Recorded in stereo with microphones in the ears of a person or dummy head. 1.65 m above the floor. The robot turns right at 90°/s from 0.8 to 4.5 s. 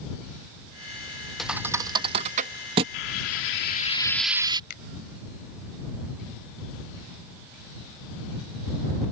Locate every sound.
1.4 s a thud: 5° left (ahead or behind); by 2.8 s 20° right (ahead or behind)
2.9 s frying: 60° left; by 4.6 s 160° right
4.7 s a finger snap: 55° left (ahead or behind)